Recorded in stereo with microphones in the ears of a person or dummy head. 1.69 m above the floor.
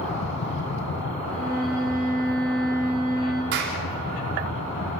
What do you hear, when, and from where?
0.0 s a fan: 65° left (ahead or behind), 2.5 m
1.3 s a violin: 5° left (ahead or behind), 10 m
3.5 s a clap: 65° right (ahead or behind), 4 m